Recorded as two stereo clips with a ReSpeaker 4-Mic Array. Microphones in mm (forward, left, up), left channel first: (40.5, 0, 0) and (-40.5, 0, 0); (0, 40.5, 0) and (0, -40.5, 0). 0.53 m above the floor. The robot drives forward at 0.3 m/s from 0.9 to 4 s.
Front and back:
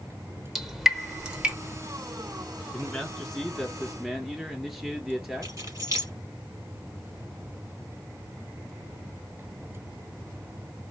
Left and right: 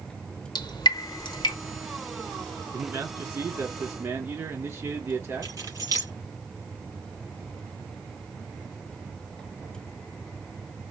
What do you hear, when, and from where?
0.6 s dripping: 90° left, 1.0 m; by 1.6 s 105° left, 1.0 m
2.7 s a man speaking: 75° right, 1.3 m; by 5.5 s 110° right, 1.3 m
5.4 s keys jangling: 135° right, 3.5 m